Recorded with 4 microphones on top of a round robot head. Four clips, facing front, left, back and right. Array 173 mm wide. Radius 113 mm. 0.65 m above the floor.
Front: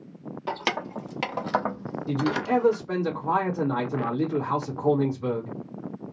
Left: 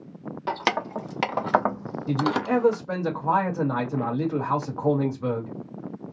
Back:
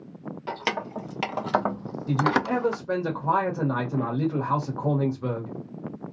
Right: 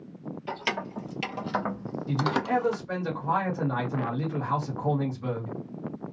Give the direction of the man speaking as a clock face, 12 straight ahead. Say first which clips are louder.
Left 3 dB, back 1 dB; 8 o'clock.